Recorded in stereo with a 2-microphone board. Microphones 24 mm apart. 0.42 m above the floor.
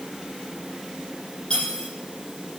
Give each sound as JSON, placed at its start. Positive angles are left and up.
{"t": 1.5, "sound": "cutlery clinking", "side_deg": 35, "distance_m": 7.0}